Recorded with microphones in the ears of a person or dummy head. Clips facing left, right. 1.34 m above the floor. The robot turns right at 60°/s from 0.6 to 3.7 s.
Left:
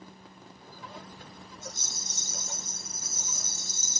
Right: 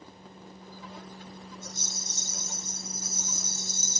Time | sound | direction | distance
1.6 | a rattle | 160° left | 1.7 m